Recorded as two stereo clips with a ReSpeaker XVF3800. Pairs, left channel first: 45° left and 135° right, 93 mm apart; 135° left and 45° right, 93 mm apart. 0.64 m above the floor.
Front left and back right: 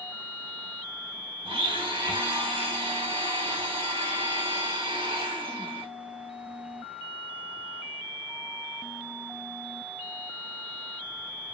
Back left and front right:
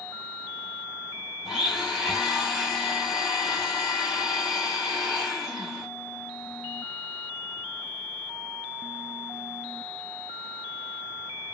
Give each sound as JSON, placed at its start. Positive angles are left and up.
{"t": 1.4, "sound": "a blender", "azimuth_deg": -135, "distance_m": 1.4}